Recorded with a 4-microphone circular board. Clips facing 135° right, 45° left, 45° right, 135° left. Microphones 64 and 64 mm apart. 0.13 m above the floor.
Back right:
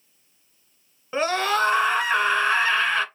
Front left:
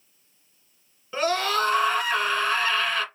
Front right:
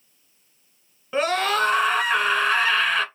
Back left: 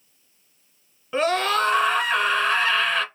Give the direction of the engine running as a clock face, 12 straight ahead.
No engine running in this recording.